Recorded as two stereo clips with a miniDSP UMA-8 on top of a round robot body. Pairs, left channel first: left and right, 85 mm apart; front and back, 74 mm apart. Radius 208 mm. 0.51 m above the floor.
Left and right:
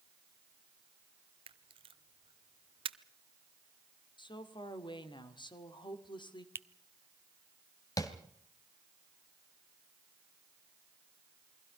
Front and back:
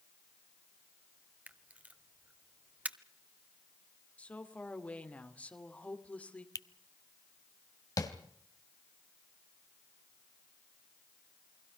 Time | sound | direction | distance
1.5 | a camera shutter | 110° right | 0.8 m
4.2 | a woman speaking | 70° left | 2.5 m
6.5 | a finger snap | 30° right | 1.0 m
8.0 | tapping | 40° left | 2.5 m